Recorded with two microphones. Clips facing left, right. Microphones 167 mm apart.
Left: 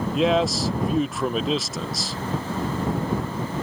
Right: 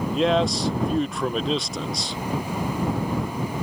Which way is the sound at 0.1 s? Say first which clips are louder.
Even; centre (ahead or behind).